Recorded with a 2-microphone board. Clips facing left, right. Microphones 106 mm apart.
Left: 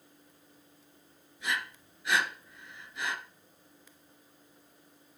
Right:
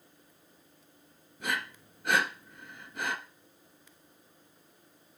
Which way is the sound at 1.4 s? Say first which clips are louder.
Right 1 dB; 55° right (ahead or behind).